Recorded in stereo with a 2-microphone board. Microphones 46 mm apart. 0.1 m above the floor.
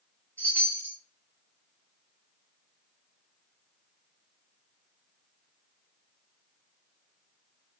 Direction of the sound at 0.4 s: 40° left (ahead or behind).